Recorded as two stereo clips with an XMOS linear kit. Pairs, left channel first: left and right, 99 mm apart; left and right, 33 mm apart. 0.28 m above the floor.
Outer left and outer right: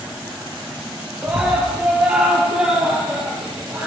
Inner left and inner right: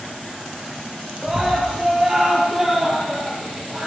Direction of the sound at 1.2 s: 10° right (ahead or behind).